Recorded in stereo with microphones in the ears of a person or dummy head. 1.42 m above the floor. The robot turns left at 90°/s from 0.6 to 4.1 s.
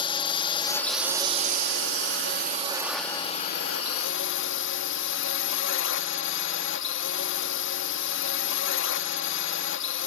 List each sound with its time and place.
0.0 s a drone: 30° left; by 10.1 s 75° left